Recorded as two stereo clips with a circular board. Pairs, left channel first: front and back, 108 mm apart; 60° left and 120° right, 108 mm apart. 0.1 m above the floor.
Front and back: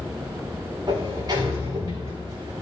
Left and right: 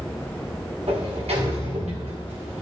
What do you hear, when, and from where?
0.9 s a sliding door: 130° right, 4.5 m